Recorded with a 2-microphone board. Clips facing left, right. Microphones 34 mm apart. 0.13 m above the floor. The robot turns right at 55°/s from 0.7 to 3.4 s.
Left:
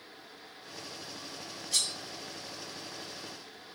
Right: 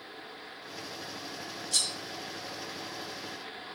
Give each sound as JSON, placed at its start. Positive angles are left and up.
{"t": 1.7, "sound": "cutlery clinking", "side_deg": 5, "distance_m": 0.9}